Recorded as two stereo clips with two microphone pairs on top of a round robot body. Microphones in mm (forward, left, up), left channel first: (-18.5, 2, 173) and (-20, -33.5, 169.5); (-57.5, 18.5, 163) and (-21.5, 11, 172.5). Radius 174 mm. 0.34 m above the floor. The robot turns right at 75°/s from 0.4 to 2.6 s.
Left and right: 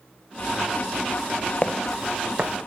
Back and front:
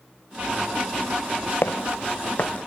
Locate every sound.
1.6 s footsteps: 145° left, 1.3 m; by 2.6 s 140° right, 1.3 m